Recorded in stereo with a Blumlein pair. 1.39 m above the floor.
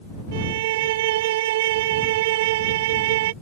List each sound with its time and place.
0.3 s a violin: 55° right